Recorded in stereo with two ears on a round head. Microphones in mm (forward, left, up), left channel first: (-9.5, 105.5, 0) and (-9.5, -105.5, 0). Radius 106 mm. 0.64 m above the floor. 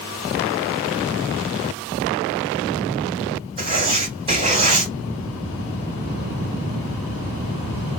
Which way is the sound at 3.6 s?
25° right (ahead or behind).